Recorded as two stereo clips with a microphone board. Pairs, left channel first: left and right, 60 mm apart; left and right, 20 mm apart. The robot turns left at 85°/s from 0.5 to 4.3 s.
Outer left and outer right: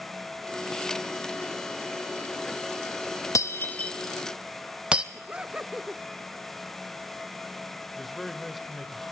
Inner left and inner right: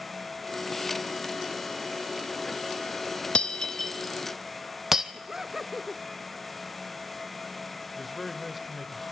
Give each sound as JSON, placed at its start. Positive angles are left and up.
{"t": 3.4, "sound": "breaking glass", "side_deg": 60, "distance_m": 1.4}
{"t": 5.1, "sound": "laughter", "side_deg": -20, "distance_m": 0.7}
{"t": 8.0, "sound": "a man speaking", "side_deg": 0, "distance_m": 1.9}